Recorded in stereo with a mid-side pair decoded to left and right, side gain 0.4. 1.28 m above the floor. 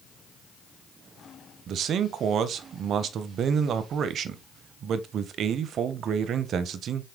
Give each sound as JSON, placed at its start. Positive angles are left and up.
{"t": 1.7, "sound": "a man speaking", "azimuth_deg": -70, "distance_m": 0.6}